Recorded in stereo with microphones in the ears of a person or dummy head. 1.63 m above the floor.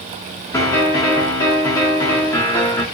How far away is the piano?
About 0.7 m.